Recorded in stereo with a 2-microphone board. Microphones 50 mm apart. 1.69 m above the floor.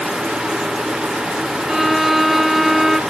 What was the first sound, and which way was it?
A violin, 5° right (ahead or behind).